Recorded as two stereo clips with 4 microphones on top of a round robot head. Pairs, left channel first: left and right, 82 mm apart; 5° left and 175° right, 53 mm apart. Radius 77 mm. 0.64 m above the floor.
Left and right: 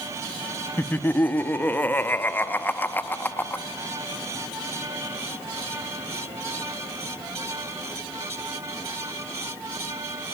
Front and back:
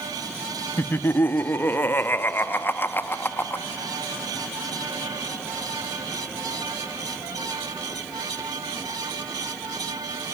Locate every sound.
0.8 s laughter: 30° left, 0.8 m